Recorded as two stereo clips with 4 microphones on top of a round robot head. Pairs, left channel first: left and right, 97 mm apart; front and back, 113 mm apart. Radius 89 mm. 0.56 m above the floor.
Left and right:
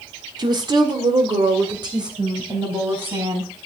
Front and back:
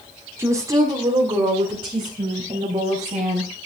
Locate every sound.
0.4 s a woman speaking: 115° right, 1.6 m; by 3.5 s 135° right, 5 m